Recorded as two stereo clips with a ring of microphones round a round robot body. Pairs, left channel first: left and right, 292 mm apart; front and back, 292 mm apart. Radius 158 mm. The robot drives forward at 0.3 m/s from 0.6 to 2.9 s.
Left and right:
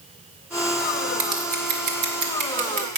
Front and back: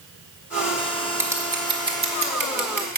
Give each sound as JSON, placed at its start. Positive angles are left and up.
{"t": 1.2, "sound": "scissors", "azimuth_deg": -100, "distance_m": 1.3}